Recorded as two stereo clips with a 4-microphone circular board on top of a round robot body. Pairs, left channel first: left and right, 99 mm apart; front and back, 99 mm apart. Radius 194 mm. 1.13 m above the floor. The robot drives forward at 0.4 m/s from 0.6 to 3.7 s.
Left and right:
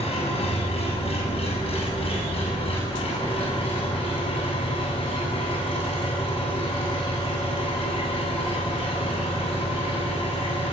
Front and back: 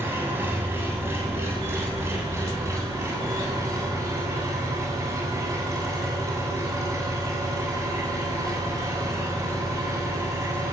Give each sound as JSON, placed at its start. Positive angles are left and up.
{"t": 0.0, "sound": "an engine running", "azimuth_deg": 110, "distance_m": 7.5}